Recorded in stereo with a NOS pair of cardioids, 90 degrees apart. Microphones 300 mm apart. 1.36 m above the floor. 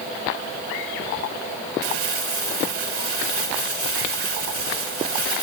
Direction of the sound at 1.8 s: 50° right.